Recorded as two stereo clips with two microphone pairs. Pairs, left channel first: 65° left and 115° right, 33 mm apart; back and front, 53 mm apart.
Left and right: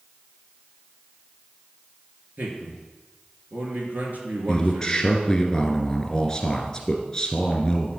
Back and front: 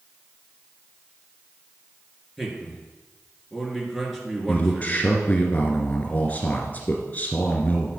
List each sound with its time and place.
2.4 s a man speaking: 90° right, 2.5 m
4.5 s a man speaking: 135° left, 2 m